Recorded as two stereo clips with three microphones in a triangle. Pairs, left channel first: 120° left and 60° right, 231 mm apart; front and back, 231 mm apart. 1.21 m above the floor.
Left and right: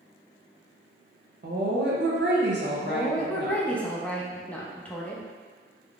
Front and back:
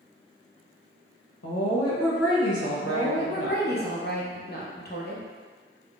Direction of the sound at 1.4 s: 15° right.